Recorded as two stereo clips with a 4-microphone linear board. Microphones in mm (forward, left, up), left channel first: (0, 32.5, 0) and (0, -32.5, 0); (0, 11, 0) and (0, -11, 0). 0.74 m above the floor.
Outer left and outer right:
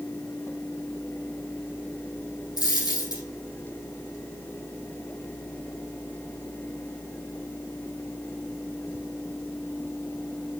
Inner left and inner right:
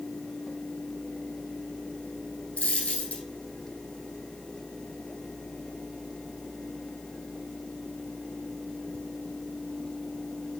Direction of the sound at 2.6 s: 75° left (ahead or behind).